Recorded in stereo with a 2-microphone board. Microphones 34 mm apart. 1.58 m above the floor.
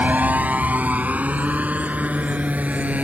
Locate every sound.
0.0 s a motorcycle: 50° right (ahead or behind); by 3.0 s 45° right (ahead or behind)